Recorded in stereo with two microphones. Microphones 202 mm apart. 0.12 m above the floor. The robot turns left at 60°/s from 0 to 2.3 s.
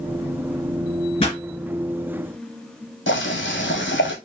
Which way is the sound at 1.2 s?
30° left (ahead or behind).